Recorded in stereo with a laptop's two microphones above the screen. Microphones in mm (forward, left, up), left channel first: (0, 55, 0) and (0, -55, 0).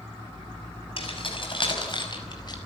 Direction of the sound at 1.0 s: 50° left (ahead or behind).